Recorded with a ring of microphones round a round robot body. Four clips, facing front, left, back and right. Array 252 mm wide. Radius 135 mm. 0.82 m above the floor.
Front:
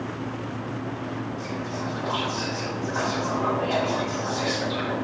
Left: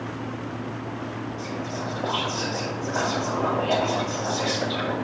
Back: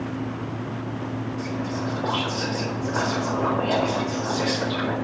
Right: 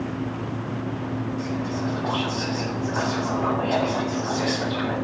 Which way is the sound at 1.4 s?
130° left.